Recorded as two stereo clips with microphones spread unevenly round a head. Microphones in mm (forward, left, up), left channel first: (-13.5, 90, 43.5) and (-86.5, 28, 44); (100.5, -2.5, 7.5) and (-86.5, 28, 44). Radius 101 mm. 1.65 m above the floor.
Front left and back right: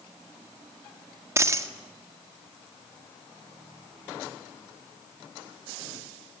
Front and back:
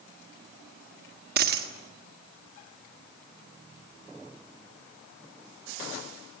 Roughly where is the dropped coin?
Behind.